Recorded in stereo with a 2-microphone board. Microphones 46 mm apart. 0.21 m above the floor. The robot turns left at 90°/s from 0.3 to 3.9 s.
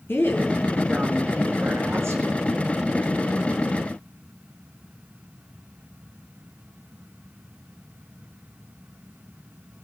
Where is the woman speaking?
60° left, 4.5 m; by 2.3 s 125° right, 4.5 m.